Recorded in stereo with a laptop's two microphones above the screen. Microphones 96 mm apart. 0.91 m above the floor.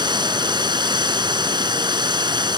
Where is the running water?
50° right (ahead or behind).